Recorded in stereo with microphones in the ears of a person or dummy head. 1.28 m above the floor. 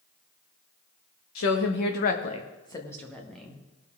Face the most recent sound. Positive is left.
turn(degrees=-5)  # may be behind; listen again after turning